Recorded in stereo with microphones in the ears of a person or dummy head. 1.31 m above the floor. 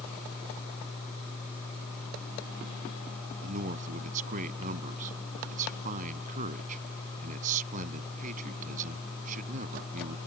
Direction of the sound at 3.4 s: 45° right (ahead or behind).